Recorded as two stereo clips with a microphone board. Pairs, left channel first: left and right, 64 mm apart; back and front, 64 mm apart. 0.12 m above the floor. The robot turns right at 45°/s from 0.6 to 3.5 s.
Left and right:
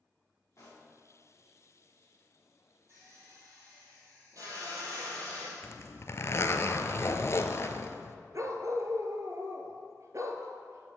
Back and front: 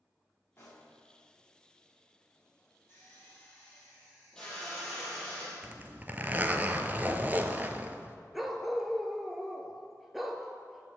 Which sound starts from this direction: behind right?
A drill, at 2.9 s.